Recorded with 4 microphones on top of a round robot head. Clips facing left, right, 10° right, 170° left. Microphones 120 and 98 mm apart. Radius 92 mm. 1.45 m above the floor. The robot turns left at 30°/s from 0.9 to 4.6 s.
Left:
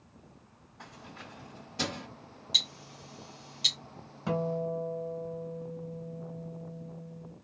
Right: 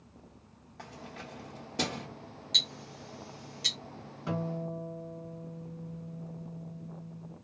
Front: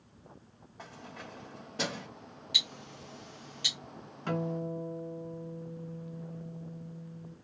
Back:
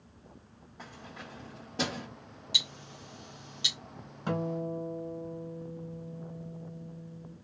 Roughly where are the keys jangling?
Right.